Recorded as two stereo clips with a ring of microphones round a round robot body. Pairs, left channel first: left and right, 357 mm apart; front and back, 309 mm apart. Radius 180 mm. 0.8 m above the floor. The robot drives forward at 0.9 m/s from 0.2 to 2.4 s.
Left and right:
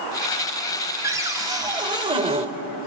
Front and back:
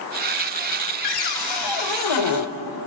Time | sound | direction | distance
1.0 | a cupboard door | 10° right | 2.5 m